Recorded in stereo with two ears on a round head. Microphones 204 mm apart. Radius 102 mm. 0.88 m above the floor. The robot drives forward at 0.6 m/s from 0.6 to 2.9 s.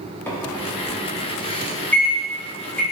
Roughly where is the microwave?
Centre.